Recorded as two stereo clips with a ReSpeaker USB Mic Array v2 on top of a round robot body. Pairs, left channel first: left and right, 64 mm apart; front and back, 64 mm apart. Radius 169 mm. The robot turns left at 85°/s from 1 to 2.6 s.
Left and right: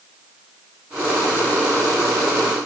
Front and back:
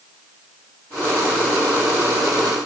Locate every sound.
Only background noise.